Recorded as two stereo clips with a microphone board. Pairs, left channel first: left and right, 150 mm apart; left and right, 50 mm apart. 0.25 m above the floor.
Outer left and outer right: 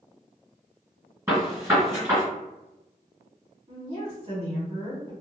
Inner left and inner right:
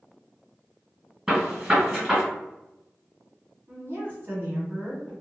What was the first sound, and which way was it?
A gunshot, 15° right (ahead or behind).